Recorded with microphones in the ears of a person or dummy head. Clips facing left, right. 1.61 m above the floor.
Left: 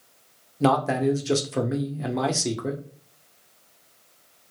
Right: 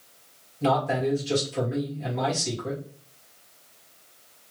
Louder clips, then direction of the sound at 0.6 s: Left 3 dB; 65° left (ahead or behind).